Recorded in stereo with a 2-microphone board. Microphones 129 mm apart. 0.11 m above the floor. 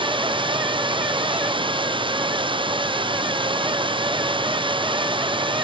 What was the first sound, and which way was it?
Running water, 40° right (ahead or behind).